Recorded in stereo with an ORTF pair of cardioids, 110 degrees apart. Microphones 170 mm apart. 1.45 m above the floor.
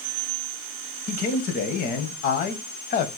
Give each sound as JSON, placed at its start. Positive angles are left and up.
{"t": 1.1, "sound": "a man speaking", "azimuth_deg": 65, "distance_m": 1.1}